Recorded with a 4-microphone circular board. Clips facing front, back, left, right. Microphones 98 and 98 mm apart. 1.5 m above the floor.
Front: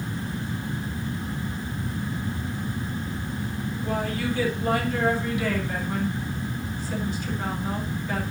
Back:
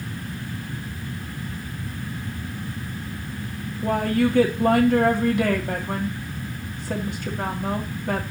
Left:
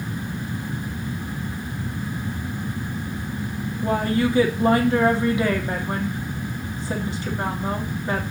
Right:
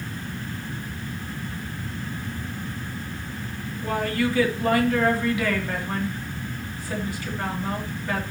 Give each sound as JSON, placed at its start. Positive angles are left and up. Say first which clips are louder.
{"t": 3.8, "sound": "a woman speaking", "louder": "back 8 dB, left 3 dB", "azimuth_deg": 155, "distance_m": 2.5}